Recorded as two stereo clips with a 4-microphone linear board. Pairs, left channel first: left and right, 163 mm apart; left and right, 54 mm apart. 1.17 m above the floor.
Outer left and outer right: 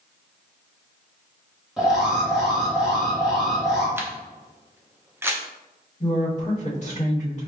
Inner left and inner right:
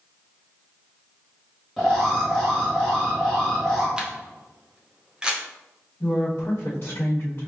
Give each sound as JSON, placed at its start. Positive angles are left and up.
{"t": 1.8, "sound": "an alarm", "side_deg": 0, "distance_m": 1.5}
{"t": 4.0, "sound": "a camera shutter", "side_deg": -15, "distance_m": 0.5}
{"t": 6.0, "sound": "a woman speaking", "side_deg": 45, "distance_m": 1.3}